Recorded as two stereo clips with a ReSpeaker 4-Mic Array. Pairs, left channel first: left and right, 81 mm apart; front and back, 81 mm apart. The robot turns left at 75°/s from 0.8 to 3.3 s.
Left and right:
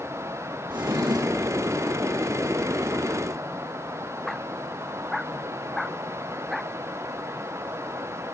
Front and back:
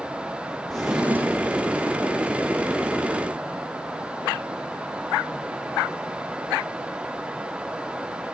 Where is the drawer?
85° right, 3.5 m; by 1.6 s 145° right, 3.5 m.